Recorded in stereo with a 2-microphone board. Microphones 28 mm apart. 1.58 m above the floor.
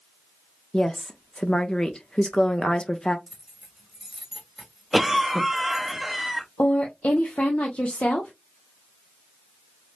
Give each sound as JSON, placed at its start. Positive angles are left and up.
{"t": 0.7, "sound": "a woman speaking", "side_deg": 30, "distance_m": 0.6}
{"t": 3.3, "sound": "keys jangling", "side_deg": -10, "distance_m": 1.7}
{"t": 4.9, "sound": "a cough", "side_deg": -10, "distance_m": 0.8}
{"t": 6.6, "sound": "a woman speaking", "side_deg": 50, "distance_m": 0.7}